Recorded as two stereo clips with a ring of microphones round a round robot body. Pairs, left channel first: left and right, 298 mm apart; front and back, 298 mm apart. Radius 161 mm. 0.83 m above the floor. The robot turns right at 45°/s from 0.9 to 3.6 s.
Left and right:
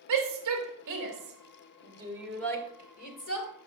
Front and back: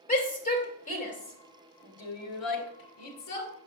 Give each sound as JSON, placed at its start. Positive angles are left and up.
{"t": 0.1, "sound": "a shout", "azimuth_deg": -65, "distance_m": 2.5}